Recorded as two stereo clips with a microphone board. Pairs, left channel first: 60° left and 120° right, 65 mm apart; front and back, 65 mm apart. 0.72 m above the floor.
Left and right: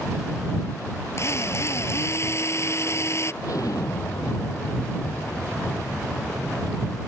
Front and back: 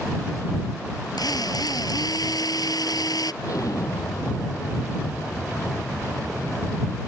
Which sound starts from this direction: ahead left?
An explosion, at 3.4 s.